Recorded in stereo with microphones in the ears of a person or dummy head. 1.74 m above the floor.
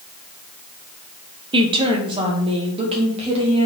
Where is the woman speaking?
25° right (ahead or behind), 0.8 m; by 3.7 s 30° right (ahead or behind), 2 m.